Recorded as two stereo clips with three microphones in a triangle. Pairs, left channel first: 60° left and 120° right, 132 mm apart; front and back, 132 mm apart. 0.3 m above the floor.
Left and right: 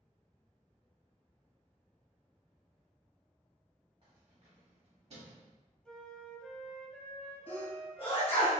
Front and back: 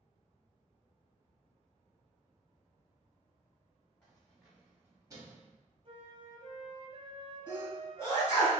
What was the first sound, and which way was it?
Keys jangling, 80° right.